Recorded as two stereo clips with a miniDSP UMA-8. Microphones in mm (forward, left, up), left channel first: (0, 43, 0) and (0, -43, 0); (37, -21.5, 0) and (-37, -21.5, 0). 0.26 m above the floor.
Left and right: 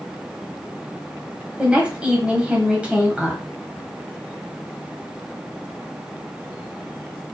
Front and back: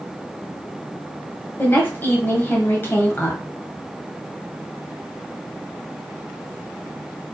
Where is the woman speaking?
25° right, 1.8 m.